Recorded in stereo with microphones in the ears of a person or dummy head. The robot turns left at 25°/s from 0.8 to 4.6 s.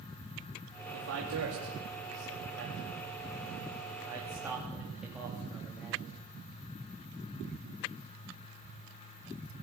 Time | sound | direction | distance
0.9 | a man speaking | 85° right | 3.5 m